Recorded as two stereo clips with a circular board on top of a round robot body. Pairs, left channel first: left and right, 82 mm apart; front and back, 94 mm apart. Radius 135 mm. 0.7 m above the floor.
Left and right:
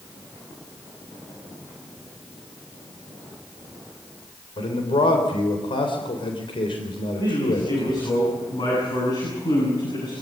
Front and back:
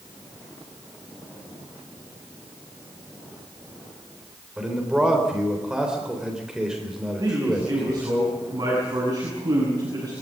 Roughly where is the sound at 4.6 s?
Left.